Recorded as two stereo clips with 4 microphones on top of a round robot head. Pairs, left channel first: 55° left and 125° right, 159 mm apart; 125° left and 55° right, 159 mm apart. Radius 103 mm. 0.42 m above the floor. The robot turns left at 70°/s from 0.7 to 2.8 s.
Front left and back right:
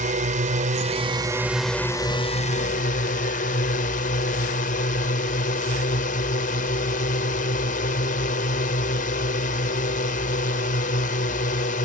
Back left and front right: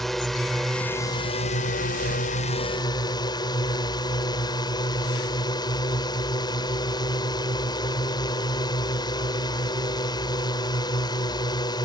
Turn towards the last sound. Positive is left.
turn(degrees=65)